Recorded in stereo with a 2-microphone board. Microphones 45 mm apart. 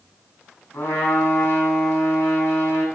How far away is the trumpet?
About 5.5 m.